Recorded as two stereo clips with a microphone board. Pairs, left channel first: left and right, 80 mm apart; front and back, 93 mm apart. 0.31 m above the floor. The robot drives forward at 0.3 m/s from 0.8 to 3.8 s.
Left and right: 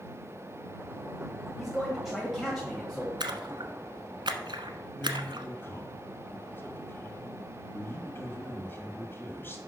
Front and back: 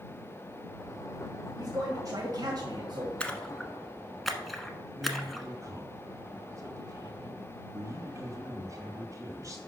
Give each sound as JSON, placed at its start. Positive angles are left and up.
{"t": 1.6, "sound": "a man speaking", "azimuth_deg": 180, "distance_m": 1.5}
{"t": 3.2, "sound": "a splash", "azimuth_deg": -80, "distance_m": 1.0}
{"t": 5.0, "sound": "a man speaking", "azimuth_deg": 140, "distance_m": 2.0}